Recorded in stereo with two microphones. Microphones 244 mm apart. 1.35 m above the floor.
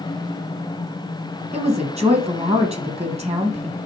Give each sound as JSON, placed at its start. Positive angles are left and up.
{"t": 1.5, "sound": "a woman speaking", "side_deg": -25, "distance_m": 1.6}